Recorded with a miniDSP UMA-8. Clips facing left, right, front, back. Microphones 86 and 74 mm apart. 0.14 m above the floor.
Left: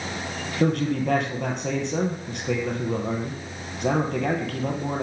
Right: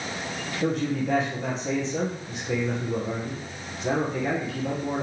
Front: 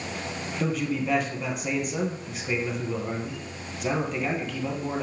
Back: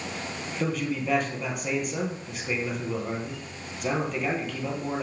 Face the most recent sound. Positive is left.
turn(degrees=90)